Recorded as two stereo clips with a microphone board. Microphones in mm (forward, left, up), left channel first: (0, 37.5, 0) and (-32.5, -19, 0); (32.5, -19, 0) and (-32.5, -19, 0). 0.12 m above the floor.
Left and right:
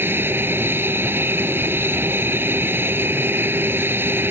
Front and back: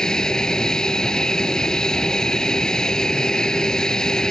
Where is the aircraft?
75° right.